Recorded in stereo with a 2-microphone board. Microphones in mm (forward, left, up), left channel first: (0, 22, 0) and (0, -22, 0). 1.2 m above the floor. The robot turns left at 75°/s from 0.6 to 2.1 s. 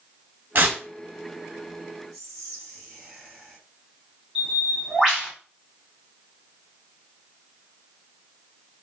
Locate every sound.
0.6 s tearing paper: 45° right (ahead or behind), 1.1 m; by 0.8 s 35° right (ahead or behind), 1.1 m
2.1 s whispering: 5° left (ahead or behind), 1.2 m
4.3 s a bird: 10° right (ahead or behind), 1.7 m